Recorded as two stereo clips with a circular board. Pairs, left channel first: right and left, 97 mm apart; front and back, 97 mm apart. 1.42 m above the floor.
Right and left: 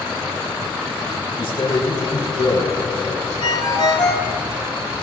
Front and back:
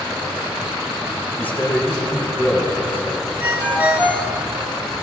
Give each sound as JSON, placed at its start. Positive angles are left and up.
{"t": 1.4, "sound": "a man speaking", "azimuth_deg": -70, "distance_m": 3.0}
{"t": 3.4, "sound": "a ringtone", "azimuth_deg": -110, "distance_m": 3.0}